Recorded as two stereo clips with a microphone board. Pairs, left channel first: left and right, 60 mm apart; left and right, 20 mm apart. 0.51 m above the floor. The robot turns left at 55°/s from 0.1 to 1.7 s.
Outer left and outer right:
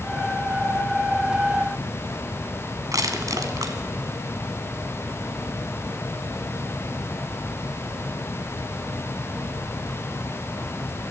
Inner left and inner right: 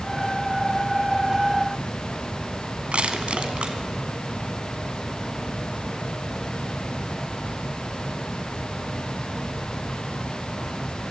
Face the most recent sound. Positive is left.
turn(degrees=-85)